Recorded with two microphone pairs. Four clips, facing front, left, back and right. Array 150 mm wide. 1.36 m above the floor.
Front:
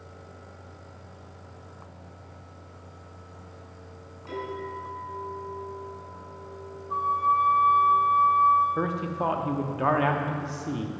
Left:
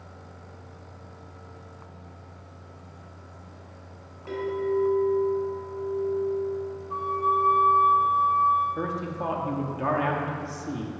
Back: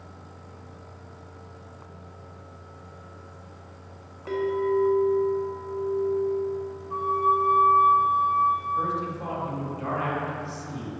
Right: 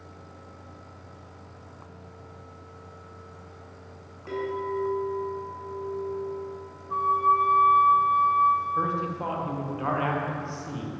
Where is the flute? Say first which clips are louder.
Right 3 dB, even; 15° left, 1.0 m.